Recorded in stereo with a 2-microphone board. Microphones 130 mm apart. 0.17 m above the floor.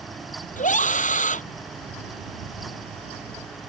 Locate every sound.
0.6 s a scream: 75° left (ahead or behind)